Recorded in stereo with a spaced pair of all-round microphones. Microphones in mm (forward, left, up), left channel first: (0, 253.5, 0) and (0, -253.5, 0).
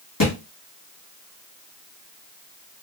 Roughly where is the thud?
Left.